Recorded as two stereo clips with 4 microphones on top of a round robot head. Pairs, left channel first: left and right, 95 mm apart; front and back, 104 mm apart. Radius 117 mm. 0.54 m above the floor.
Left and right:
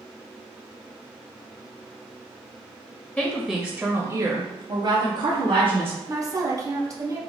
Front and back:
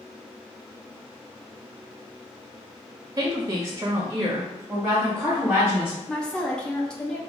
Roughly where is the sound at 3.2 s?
Behind.